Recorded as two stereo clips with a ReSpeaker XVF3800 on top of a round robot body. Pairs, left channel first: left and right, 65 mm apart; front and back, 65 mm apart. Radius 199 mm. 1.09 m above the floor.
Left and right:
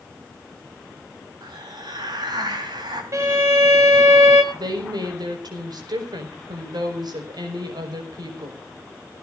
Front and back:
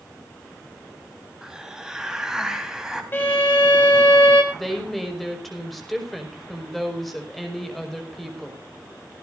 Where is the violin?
55° right, 1.1 m.